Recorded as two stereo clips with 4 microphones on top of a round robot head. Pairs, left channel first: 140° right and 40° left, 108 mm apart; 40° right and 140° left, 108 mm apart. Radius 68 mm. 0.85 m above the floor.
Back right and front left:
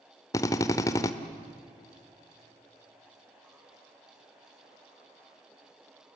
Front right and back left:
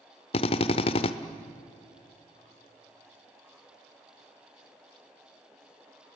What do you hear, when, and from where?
0.3 s a drill: 75° right, 1.0 m